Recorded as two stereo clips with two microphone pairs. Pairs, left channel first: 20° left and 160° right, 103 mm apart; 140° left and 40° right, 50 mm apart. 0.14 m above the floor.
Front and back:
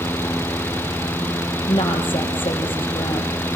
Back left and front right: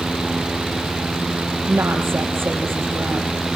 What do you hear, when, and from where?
1.7 s a woman speaking: 5° right, 4 m